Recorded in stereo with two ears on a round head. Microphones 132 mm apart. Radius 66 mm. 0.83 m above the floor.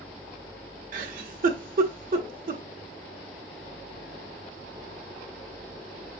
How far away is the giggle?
About 0.8 m.